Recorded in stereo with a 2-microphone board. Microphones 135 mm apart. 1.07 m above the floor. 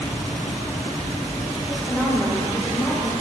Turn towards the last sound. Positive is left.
turn(degrees=0)  # may be behind; listen again after turning